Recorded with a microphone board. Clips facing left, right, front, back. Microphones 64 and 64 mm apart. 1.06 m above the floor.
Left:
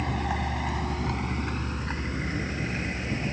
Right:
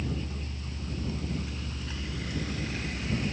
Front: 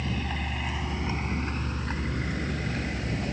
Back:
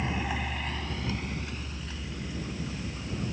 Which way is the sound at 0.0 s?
115° left.